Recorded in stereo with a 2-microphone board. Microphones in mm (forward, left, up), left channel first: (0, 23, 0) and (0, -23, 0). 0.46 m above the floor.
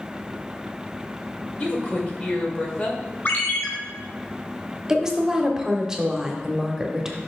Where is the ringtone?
50° left (ahead or behind), 1.2 m.